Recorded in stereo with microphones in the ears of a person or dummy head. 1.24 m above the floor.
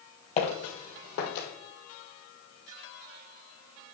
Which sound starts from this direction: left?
Footsteps, at 0.4 s.